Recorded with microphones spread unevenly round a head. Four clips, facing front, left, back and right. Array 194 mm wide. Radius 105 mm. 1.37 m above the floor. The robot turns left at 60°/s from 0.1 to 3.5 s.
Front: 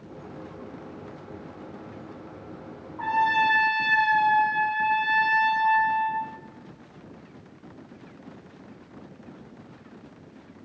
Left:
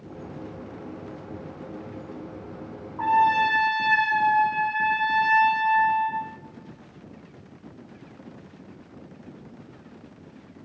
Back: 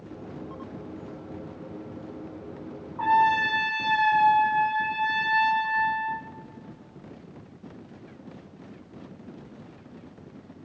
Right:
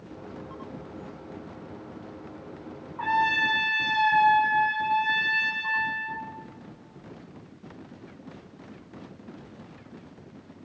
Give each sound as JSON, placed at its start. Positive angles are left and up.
{"t": 3.0, "sound": "a trumpet", "azimuth_deg": 145, "distance_m": 4.0}